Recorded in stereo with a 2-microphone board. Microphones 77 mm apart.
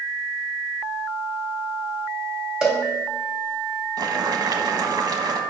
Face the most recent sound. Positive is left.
turn(degrees=-65)  # may be behind; listen again after turning